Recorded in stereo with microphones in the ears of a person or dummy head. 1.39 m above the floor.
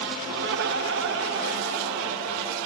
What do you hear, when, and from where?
0.3 s laughter: 60° right (ahead or behind), 1.0 m